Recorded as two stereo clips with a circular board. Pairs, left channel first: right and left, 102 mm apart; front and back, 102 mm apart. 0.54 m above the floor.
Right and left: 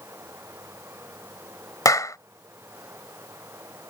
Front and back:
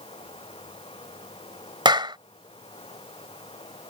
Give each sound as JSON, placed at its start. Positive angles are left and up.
{"t": 0.0, "sound": "running water", "azimuth_deg": 25}
{"t": 1.9, "sound": "a clap", "azimuth_deg": -145}